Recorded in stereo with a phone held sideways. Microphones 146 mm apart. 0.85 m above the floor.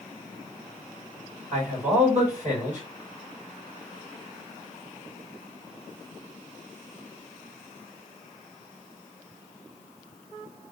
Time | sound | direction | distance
1.5 | a man speaking | 55° right (ahead or behind) | 1.7 m